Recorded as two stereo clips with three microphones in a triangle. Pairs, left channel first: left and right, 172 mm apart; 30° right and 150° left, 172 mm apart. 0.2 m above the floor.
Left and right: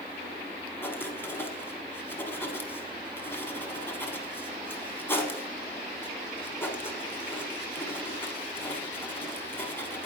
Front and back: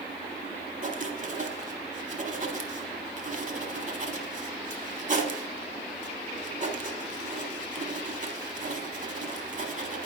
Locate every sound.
0.8 s writing: 160° left, 0.8 m